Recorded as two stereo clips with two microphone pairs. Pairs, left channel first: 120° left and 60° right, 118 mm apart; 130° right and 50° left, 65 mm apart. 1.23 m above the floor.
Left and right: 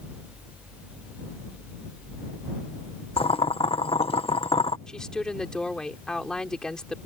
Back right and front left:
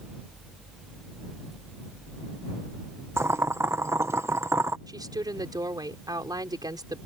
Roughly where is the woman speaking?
Ahead left.